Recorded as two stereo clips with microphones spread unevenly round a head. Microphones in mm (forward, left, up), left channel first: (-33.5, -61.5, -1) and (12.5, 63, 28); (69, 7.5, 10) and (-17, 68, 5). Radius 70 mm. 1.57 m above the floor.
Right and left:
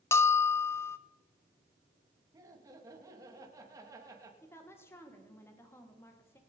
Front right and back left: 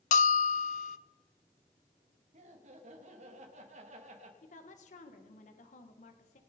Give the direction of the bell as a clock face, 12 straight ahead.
1 o'clock.